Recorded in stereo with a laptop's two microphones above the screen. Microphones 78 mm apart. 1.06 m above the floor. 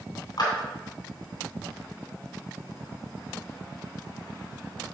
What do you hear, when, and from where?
0.4 s a clap: 65° left (ahead or behind), 3 m